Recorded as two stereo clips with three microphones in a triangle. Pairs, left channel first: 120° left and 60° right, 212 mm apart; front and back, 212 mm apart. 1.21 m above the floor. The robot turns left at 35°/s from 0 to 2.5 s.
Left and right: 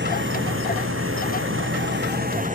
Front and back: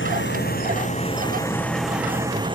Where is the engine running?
25° right; by 2.5 s 115° right.